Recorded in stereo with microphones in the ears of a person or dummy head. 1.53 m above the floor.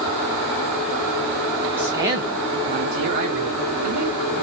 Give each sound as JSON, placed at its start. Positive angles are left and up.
{"t": 1.8, "sound": "a man speaking", "side_deg": -10, "distance_m": 1.2}